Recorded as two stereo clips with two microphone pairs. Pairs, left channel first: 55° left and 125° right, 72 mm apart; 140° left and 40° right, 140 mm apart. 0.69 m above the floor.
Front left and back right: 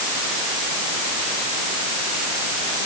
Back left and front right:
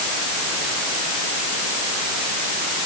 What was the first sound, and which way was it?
Only background noise.